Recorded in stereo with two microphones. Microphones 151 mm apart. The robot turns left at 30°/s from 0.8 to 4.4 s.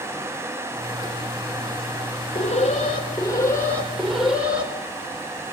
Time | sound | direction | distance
2.4 | an alarm | 55° left | 4 m